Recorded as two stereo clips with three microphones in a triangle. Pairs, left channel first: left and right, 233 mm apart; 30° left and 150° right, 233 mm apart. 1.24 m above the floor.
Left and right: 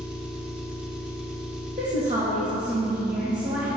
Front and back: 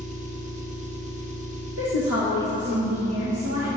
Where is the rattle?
I don't hear a rattle.